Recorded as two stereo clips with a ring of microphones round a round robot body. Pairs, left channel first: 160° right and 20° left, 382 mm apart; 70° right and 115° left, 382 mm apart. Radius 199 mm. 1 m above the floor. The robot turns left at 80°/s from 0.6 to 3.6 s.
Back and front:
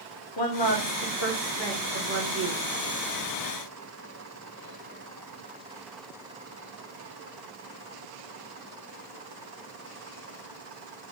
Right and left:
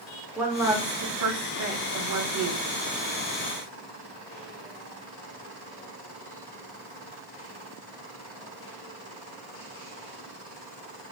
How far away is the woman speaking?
About 0.8 m.